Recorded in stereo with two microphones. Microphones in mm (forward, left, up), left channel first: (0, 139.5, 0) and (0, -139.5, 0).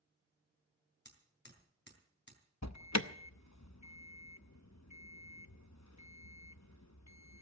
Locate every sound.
1.1 s hammering: 40° left (ahead or behind), 4 m
2.6 s an alarm: 75° left (ahead or behind), 0.8 m